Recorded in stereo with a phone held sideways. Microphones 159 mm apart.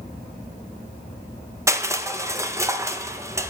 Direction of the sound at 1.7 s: 20° right (ahead or behind).